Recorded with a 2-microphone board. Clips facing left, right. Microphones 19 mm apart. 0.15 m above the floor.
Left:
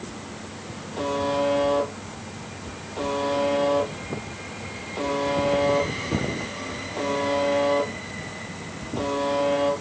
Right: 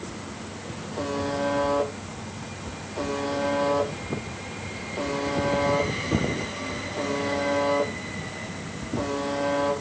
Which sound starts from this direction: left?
A buzzer, at 1.0 s.